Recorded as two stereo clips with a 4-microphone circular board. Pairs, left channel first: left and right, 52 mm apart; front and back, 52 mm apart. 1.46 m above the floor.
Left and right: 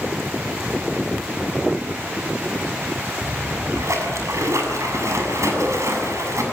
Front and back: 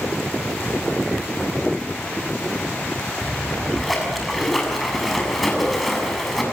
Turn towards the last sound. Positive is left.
turn(degrees=-90)